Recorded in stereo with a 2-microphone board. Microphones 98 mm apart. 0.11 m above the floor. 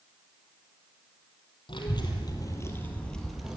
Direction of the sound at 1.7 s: 55° left (ahead or behind).